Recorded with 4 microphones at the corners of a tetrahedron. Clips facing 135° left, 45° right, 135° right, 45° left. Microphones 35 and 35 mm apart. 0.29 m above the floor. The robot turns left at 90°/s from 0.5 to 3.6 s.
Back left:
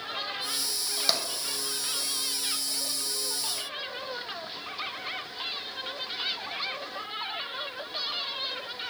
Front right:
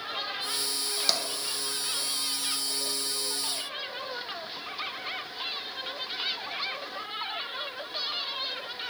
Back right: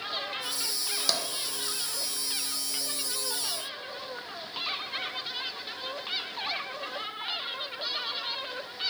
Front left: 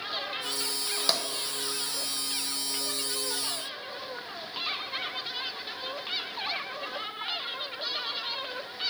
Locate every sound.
1.1 s tapping: 80° left, 0.6 m; by 1.2 s 65° left, 0.6 m